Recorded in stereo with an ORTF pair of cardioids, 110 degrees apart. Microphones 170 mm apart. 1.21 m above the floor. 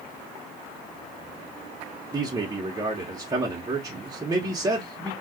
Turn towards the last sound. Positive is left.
turn(degrees=-20)